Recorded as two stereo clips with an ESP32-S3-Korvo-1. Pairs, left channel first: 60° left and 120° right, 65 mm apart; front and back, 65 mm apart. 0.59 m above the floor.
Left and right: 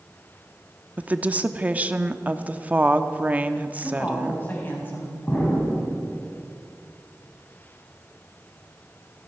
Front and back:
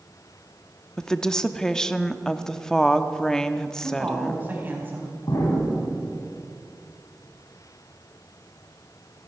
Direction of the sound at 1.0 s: 75° right.